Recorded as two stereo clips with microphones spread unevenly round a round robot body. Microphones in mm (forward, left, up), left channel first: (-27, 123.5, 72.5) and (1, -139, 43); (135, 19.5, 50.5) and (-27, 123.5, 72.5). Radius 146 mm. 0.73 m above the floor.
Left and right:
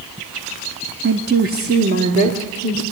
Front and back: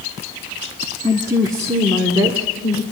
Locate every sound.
1.0 s a woman speaking: 130° right, 1.2 m; by 2.8 s 135° right, 2.5 m